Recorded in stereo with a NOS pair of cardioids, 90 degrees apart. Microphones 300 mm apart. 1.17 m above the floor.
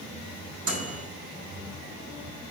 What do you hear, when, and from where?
0.7 s a microwave: 50° right, 3 m